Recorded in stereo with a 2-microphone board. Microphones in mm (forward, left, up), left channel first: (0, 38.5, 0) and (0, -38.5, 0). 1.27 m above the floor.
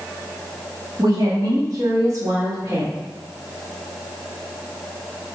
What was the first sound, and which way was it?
A woman speaking, 65° right (ahead or behind).